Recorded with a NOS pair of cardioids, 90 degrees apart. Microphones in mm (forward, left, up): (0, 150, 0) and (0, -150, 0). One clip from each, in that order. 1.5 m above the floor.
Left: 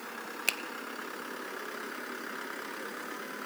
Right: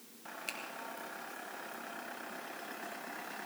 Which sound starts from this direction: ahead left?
A finger snap, at 0.5 s.